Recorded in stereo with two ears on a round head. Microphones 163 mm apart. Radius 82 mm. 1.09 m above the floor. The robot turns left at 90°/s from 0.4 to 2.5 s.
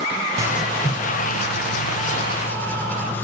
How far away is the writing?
About 0.7 m.